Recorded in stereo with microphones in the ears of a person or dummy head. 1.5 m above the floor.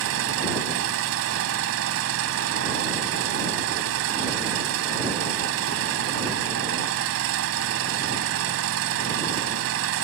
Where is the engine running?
75° right (ahead or behind).